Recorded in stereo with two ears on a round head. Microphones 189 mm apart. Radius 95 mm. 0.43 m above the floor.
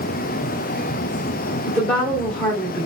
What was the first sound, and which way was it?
A woman speaking, 5° left (ahead or behind).